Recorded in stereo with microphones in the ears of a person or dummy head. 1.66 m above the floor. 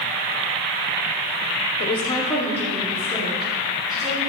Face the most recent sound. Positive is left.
turn(degrees=-5)  # may be behind; listen again after turning